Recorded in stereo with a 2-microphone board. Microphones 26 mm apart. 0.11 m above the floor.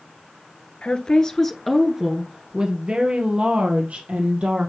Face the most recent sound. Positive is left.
turn(degrees=-60)  # may be behind; listen again after turning